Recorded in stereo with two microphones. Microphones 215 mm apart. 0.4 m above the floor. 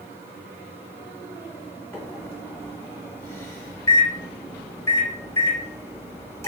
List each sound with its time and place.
1.9 s a microwave: 15° left (ahead or behind), 1.3 m